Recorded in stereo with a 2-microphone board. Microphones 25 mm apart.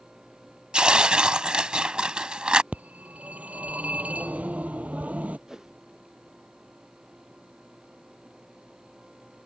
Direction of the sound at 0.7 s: 35° right (ahead or behind).